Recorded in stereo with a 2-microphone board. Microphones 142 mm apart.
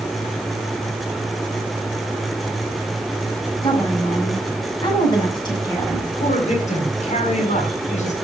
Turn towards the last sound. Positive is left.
turn(degrees=55)  # may be behind; listen again after turning